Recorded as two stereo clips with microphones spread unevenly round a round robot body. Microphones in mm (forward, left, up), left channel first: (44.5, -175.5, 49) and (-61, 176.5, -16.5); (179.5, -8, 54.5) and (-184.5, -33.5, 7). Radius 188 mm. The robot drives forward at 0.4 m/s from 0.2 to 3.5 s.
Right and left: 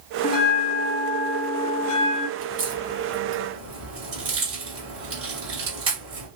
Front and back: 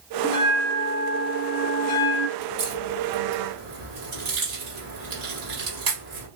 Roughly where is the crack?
Behind left.